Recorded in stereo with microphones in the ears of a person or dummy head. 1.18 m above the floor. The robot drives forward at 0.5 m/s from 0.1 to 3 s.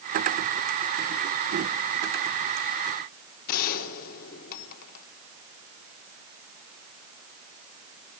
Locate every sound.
3.5 s a gunshot: 50° left (ahead or behind), 3.5 m